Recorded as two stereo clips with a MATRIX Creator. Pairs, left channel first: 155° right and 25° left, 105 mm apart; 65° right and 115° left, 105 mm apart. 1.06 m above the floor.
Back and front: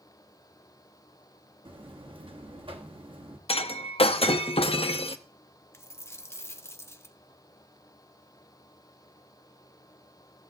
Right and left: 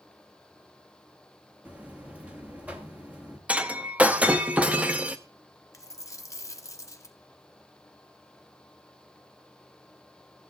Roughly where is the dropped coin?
Right.